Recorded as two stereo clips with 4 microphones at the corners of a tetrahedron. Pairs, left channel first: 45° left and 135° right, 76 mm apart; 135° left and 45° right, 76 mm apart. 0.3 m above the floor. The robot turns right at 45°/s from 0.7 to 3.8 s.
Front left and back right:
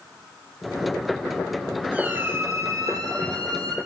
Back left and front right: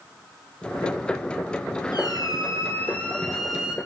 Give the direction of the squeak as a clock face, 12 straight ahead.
7 o'clock.